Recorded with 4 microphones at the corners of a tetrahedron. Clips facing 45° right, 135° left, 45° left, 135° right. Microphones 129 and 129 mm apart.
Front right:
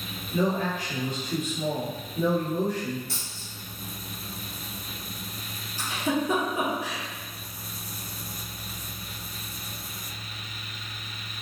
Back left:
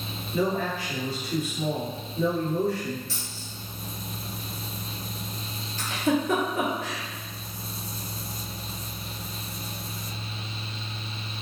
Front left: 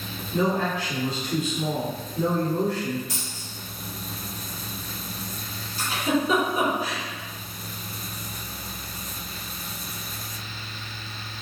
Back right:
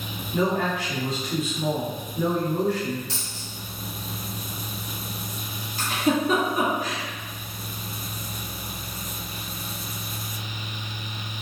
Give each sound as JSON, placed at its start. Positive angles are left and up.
{"t": 0.3, "sound": "a man speaking", "azimuth_deg": -95, "distance_m": 2.0}
{"t": 3.1, "sound": "a dropped coin", "azimuth_deg": -70, "distance_m": 1.6}
{"t": 5.8, "sound": "a giggle", "azimuth_deg": -120, "distance_m": 1.2}